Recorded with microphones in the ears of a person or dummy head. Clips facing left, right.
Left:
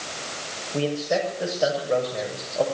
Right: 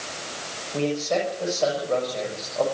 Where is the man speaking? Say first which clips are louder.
Even; 5° left (ahead or behind), 7 m.